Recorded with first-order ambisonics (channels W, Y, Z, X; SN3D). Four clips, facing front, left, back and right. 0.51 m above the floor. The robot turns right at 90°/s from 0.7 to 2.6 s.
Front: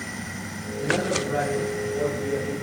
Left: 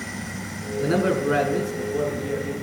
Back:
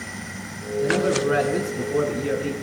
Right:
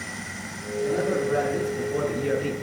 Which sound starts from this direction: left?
A man speaking, at 0.8 s.